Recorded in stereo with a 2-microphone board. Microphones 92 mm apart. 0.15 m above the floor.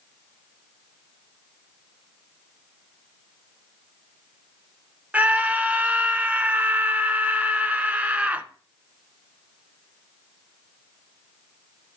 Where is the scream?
15° right (ahead or behind), 1.6 m.